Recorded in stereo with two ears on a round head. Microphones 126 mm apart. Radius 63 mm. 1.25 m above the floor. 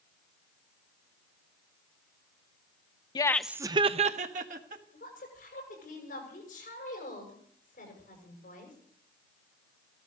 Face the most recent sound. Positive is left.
turn(degrees=65)  # may be behind; listen again after turning